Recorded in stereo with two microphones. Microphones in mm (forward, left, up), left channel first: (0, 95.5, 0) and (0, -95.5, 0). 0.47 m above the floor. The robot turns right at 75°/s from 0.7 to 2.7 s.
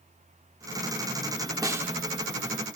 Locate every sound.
1.6 s a snare drum: 20° right (ahead or behind), 0.6 m; by 1.9 s 10° right (ahead or behind), 0.6 m